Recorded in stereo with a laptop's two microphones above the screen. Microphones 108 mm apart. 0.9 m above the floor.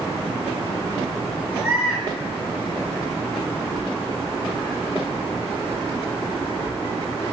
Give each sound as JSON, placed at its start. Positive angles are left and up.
{"t": 1.5, "sound": "a baby crying", "side_deg": -15, "distance_m": 6.0}